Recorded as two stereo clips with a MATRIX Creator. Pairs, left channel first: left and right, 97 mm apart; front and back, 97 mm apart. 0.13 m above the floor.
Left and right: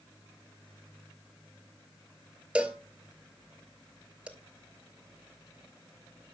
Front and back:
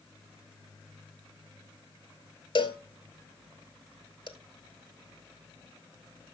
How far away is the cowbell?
About 1.0 m.